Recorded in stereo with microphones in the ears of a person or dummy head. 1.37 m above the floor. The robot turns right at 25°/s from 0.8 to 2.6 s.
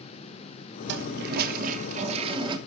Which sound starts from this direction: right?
A toilet flushing, at 0.9 s.